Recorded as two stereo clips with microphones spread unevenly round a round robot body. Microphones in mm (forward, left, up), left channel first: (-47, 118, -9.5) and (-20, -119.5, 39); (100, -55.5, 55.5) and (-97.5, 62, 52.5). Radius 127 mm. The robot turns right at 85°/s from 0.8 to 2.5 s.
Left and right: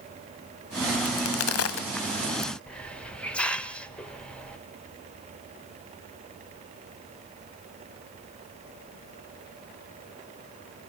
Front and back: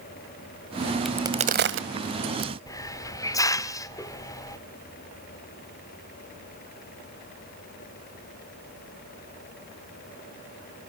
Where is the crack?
60° left, 1.6 m; by 2.5 s straight behind, 1.6 m.